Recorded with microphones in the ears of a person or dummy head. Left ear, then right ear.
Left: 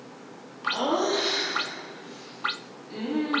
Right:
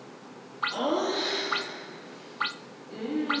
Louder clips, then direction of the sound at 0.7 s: Left 4 dB; 5° left (ahead or behind).